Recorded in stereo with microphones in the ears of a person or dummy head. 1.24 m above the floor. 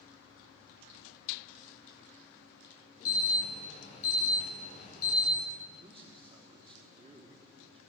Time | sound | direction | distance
3.0 | an alarm | 40° left (ahead or behind) | 10 m
5.8 | a man speaking | 25° right (ahead or behind) | 3.5 m